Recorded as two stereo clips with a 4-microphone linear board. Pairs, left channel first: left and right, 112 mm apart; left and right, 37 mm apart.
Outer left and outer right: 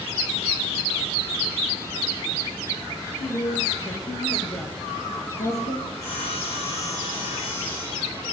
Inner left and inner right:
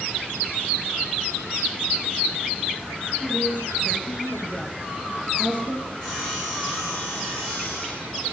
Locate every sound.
3.2 s a woman speaking: 45° left (ahead or behind), 6.5 m; by 5.8 s 70° left (ahead or behind), 6 m
5.9 s sawing: 30° left (ahead or behind), 9.5 m